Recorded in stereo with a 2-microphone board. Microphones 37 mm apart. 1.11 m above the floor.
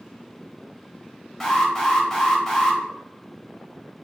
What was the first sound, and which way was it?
An alarm, centre (ahead or behind).